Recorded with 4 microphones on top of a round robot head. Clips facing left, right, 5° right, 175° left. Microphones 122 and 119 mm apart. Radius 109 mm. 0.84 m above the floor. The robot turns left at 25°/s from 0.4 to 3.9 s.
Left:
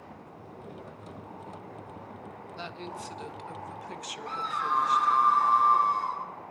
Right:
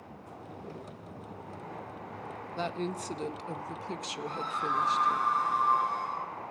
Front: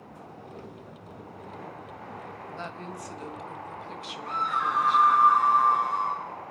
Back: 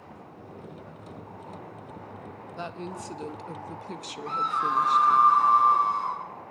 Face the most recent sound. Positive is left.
turn(degrees=115)